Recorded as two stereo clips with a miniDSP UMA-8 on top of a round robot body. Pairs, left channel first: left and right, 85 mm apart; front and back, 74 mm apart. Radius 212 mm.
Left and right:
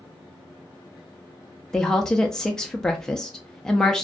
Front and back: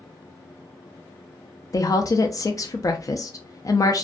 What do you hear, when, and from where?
1.7 s a woman speaking: 10° left, 0.6 m